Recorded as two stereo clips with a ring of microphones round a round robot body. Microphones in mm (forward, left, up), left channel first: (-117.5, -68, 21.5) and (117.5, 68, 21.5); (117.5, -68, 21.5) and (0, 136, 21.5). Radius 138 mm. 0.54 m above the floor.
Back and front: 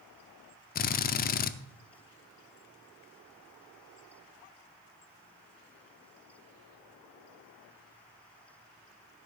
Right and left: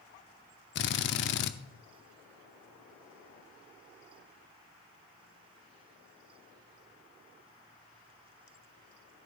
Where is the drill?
95° right, 0.6 m.